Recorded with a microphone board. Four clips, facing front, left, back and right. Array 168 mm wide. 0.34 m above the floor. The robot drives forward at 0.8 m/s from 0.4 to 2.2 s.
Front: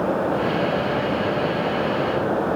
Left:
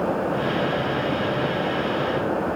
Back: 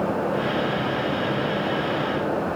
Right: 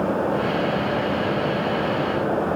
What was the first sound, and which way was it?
Only background noise.